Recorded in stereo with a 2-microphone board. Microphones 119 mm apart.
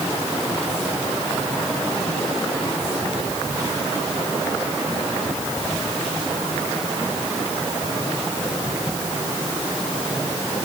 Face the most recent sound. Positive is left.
No sound to turn to.